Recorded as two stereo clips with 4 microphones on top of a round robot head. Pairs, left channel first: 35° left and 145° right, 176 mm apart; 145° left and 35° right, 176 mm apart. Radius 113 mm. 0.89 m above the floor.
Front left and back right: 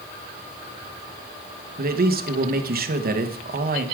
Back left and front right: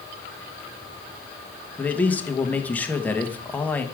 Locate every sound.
1.8 s a man speaking: 135° right, 1.3 m